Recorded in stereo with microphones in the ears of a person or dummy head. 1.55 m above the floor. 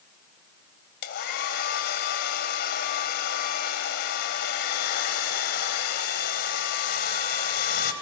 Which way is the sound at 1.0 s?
55° left (ahead or behind).